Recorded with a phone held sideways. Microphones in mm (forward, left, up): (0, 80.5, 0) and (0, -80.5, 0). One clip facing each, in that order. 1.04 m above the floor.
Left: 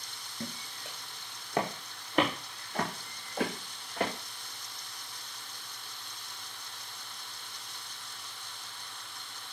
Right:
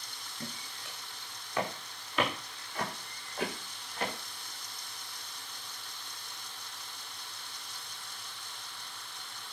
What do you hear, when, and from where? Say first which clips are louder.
0.4 s footsteps: left 3 dB; 30° left (ahead or behind), 4 m; by 4.1 s 60° left (ahead or behind), 6.5 m